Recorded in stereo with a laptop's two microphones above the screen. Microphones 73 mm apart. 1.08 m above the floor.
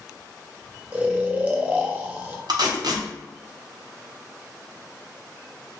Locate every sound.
0.9 s snoring: 20° right (ahead or behind), 0.7 m
2.5 s tape being pulled: 65° right (ahead or behind), 0.7 m